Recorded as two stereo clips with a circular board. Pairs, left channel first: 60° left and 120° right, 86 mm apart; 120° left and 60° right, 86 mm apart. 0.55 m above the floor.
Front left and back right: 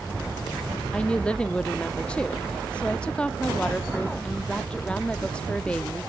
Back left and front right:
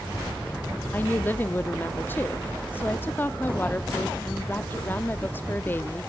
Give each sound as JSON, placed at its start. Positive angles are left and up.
{"t": 0.9, "sound": "a woman speaking", "azimuth_deg": 120, "distance_m": 0.6}